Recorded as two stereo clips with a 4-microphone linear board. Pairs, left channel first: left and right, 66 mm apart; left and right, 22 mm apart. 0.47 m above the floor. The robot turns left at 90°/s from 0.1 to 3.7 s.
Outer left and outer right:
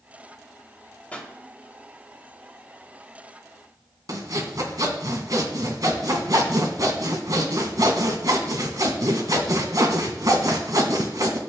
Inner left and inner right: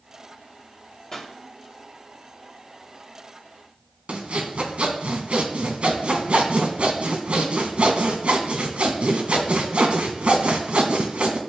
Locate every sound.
1.1 s a pop: 25° left (ahead or behind), 2.5 m; by 1.3 s 5° left (ahead or behind), 2.5 m
4.1 s sawing: 70° right (ahead or behind), 2.5 m